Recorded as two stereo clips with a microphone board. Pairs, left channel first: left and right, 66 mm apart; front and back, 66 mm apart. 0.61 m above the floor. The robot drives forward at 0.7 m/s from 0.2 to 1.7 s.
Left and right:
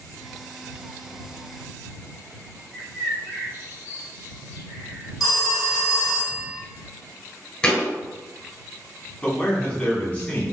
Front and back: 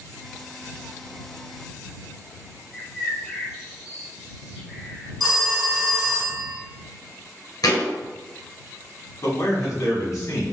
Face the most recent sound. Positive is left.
turn(degrees=20)